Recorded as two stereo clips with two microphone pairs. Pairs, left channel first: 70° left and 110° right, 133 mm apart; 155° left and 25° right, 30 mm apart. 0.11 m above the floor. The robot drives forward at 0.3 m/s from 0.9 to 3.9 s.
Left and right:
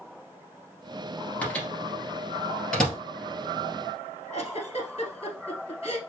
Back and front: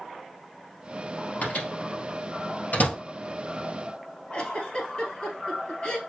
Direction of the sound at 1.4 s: 150° left.